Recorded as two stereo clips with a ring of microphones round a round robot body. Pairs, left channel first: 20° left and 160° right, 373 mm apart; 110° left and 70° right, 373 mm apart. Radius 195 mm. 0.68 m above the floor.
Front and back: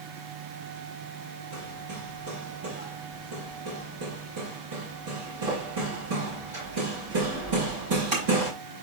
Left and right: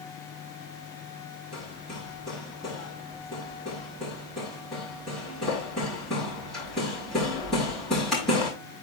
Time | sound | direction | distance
1.5 | hammering | 160° right | 5.5 m